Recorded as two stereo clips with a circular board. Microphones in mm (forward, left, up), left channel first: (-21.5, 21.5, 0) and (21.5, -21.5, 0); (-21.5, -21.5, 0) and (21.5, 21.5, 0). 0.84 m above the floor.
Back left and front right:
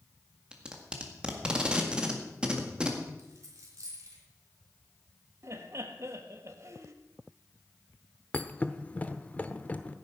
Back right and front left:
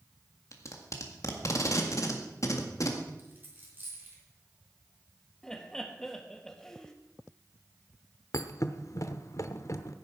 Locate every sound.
0.5 s tape being pulled: 120° right, 1.7 m
3.2 s a dropped coin: 15° right, 3.5 m
5.4 s laughter: 55° right, 1.4 m
8.3 s a thud: 165° right, 0.7 m